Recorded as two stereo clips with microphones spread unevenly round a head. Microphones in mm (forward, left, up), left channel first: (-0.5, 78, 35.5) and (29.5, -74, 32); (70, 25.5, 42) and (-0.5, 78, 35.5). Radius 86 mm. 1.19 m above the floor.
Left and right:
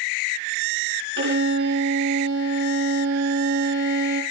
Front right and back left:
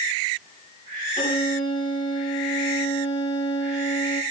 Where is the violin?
70° right, 5 m.